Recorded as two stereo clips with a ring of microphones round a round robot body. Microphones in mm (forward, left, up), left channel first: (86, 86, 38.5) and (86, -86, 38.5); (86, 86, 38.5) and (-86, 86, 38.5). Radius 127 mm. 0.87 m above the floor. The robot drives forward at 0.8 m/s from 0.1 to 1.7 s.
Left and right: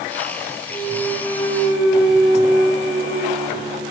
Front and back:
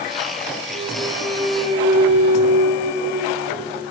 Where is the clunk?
55° right, 4.5 m; by 3.8 s 65° right, 4 m.